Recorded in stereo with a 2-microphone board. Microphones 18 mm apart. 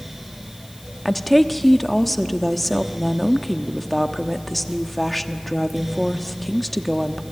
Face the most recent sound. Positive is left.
turn(degrees=0)  # may be behind; listen again after turning